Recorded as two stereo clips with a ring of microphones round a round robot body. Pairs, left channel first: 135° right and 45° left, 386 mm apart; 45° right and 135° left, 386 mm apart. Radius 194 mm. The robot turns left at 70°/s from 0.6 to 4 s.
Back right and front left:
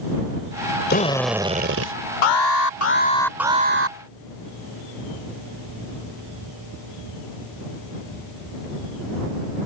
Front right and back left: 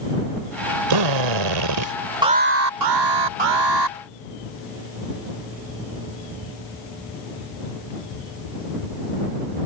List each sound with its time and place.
0.9 s a drill: 160° left; by 1.9 s 90° left
2.2 s an alarm: 145° right; by 4.0 s 90° left